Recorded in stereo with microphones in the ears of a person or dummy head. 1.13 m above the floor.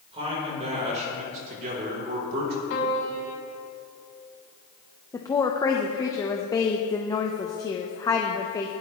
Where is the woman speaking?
10° left (ahead or behind), 0.9 m.